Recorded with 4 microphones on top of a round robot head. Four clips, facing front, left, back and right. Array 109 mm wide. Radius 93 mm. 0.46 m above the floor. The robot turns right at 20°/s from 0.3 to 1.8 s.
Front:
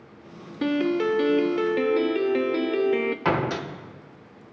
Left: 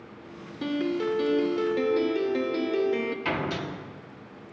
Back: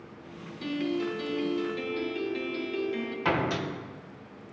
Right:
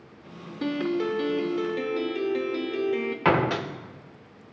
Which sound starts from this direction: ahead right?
A door slam, at 3.2 s.